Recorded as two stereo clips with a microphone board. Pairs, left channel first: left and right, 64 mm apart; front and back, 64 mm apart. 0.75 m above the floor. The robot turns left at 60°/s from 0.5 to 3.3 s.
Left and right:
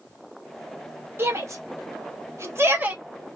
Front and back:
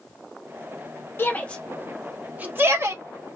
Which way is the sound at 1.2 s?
45° right.